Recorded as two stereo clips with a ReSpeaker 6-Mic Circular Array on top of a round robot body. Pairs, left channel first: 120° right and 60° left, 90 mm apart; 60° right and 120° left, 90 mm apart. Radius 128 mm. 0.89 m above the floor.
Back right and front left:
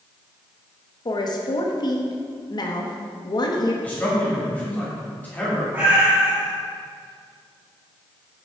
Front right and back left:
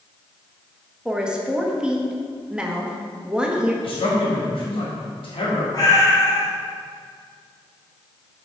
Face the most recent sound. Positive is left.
turn(degrees=-10)